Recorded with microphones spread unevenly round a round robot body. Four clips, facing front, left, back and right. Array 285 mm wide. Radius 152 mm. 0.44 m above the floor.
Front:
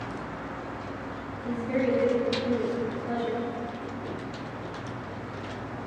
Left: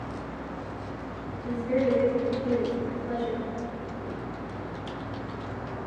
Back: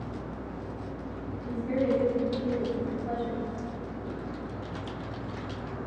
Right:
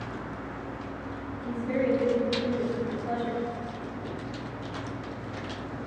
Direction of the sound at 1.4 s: 150° right.